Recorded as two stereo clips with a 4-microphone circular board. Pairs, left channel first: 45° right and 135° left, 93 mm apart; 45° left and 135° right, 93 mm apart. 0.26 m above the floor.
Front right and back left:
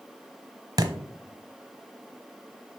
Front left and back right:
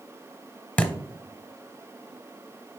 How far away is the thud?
About 0.8 m.